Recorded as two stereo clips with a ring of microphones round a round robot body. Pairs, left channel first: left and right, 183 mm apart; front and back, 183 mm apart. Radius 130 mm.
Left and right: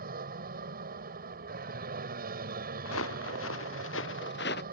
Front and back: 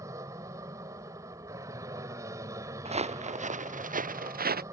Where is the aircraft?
105° right.